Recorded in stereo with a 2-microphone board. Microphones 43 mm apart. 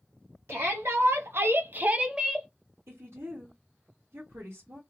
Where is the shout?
60° right (ahead or behind), 1.2 m; by 2.5 s centre (ahead or behind), 0.8 m.